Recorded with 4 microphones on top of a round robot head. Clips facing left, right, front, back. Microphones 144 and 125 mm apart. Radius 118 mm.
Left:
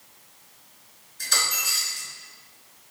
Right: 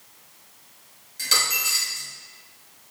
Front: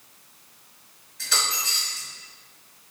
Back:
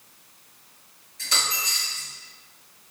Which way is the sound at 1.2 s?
110° right.